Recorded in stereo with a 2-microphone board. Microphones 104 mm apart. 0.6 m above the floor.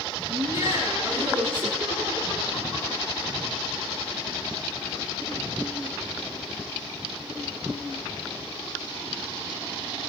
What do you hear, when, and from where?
0.3 s laughter: 55° right (ahead or behind), 8 m; by 3.2 s 45° right (ahead or behind), 10 m